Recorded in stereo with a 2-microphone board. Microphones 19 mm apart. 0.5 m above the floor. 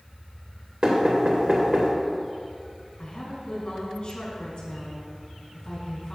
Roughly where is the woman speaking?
Left.